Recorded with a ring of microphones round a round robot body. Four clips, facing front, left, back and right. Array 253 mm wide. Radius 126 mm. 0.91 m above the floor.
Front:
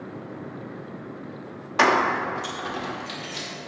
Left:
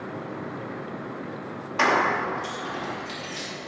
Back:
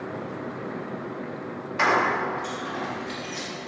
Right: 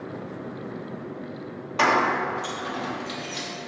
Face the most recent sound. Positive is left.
turn(degrees=-5)